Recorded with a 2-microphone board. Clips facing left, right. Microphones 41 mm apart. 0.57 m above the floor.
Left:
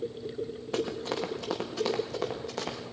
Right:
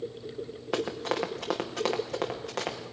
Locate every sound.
0.7 s running footsteps: 75° right (ahead or behind), 3 m; by 2.8 s 65° right (ahead or behind), 6 m